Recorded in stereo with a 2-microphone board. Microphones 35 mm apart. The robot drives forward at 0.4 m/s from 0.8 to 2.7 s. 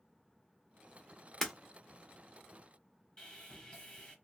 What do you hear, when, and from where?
1.4 s breaking glass: 10° left (ahead or behind), 0.9 m
3.2 s sawing: 25° left (ahead or behind), 1.1 m